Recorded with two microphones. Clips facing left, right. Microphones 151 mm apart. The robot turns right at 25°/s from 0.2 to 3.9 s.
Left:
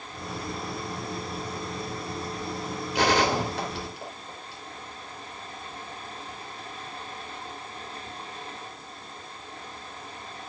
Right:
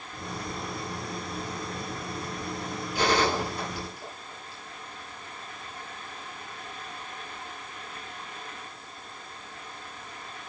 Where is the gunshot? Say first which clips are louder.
Left 2 dB; 75° left (ahead or behind), 2.5 m; by 4.6 s 80° left, 2.5 m.